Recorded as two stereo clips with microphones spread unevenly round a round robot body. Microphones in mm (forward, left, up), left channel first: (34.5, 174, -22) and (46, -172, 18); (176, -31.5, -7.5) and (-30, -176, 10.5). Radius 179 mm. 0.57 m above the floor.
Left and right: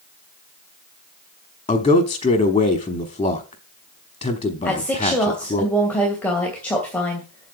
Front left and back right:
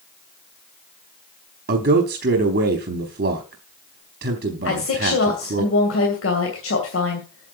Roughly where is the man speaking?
Behind.